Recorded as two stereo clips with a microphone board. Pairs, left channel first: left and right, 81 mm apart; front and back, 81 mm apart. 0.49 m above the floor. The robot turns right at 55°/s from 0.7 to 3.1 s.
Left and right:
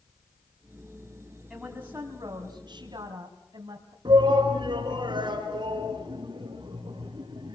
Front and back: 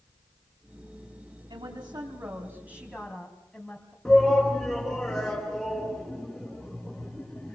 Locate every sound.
1.5 s a woman speaking: 175° right, 3 m; by 4.0 s 85° right, 3 m
4.0 s a shout: 90° right, 5 m